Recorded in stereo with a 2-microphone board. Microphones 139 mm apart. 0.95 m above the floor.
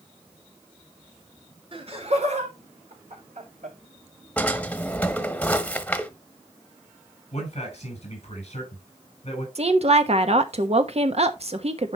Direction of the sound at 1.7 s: 45° right (ahead or behind).